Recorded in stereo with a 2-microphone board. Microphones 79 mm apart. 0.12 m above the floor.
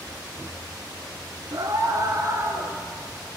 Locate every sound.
1.5 s a scream: 50° right (ahead or behind), 1.8 m; by 2.8 s 35° right (ahead or behind), 1.8 m